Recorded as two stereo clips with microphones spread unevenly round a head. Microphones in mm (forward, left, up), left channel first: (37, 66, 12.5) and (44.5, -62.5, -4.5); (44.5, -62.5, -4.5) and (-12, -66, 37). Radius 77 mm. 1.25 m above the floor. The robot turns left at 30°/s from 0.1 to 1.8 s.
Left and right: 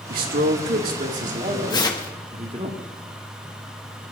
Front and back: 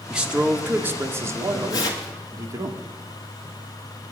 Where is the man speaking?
90° right, 1.8 m; by 2.7 s 140° right, 1.8 m.